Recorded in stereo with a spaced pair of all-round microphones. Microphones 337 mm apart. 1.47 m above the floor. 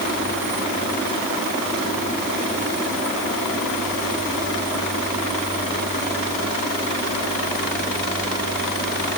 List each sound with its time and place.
Only background noise.